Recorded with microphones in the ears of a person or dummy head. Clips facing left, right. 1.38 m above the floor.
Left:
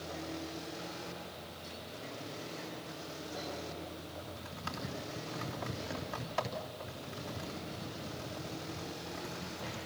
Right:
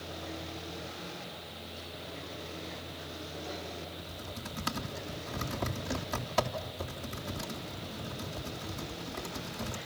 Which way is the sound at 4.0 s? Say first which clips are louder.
Right 2 dB; 50° right (ahead or behind).